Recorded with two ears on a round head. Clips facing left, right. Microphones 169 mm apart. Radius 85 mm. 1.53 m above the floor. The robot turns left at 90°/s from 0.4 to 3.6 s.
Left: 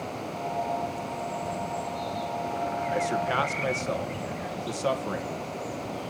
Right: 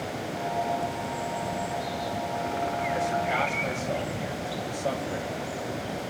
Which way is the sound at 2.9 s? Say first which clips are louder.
Left 2 dB; 25° left (ahead or behind).